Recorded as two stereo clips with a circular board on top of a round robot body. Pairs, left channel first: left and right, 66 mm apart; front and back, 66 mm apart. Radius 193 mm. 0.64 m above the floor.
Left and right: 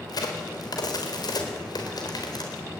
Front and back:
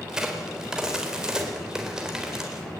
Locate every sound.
0.1 s a crack: 100° left, 4.5 m